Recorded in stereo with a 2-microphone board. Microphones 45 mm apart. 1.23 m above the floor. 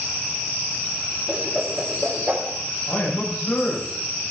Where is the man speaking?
35° left (ahead or behind), 7.5 m.